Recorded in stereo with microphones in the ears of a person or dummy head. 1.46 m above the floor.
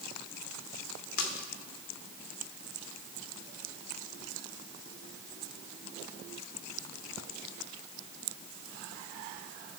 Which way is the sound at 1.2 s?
70° left (ahead or behind).